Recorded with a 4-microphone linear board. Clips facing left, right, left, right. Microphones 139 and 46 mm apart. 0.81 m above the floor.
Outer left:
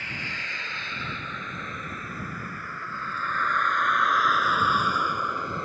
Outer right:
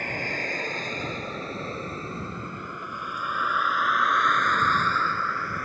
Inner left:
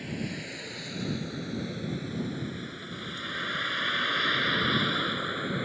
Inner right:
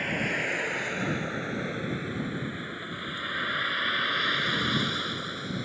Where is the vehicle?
50° right (ahead or behind); by 5.7 s 25° left (ahead or behind).